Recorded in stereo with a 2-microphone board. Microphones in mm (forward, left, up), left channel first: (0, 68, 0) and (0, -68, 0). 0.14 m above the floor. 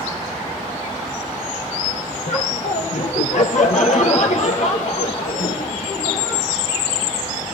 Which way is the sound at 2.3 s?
65° left (ahead or behind).